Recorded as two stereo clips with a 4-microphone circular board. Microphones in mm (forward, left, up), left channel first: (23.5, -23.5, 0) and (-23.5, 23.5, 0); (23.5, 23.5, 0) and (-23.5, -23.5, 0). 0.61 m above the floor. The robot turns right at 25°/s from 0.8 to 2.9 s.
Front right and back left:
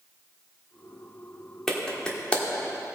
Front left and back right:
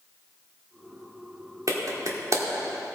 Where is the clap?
130° right, 1.4 m; by 2.4 s 110° right, 1.4 m.